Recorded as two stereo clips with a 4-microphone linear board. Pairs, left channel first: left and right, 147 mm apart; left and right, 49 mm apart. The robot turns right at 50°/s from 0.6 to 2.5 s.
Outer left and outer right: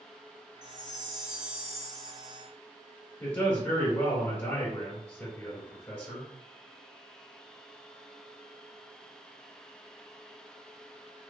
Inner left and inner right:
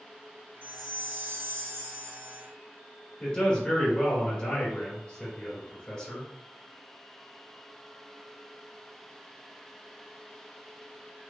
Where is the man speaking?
15° left (ahead or behind), 1.5 m.